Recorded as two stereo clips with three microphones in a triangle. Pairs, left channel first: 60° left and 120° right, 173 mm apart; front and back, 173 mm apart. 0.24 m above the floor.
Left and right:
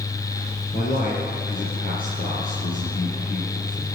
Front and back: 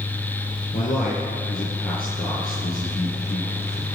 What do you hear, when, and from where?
0.7 s a man speaking: 30° left, 4 m